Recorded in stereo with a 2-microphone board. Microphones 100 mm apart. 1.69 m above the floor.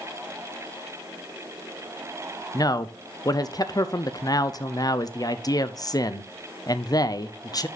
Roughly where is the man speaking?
Left.